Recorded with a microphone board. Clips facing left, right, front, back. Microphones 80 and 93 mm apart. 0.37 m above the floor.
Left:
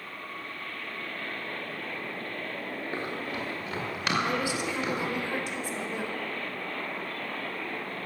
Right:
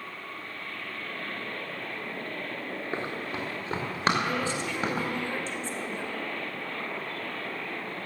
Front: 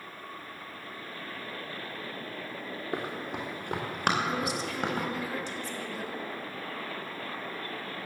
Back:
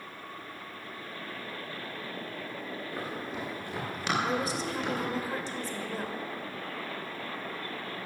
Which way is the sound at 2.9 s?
25° right.